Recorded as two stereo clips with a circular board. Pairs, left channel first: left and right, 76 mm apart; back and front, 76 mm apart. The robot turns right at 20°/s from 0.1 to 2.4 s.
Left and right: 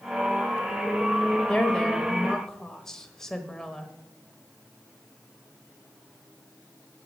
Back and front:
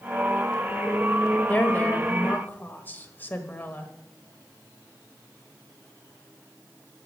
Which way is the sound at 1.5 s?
145° left.